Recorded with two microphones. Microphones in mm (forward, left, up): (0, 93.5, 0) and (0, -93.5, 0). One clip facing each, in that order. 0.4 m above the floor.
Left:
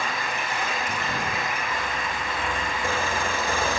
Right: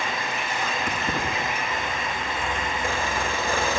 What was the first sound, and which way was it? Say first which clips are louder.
Keys jangling: right 2 dB; 70° right (ahead or behind).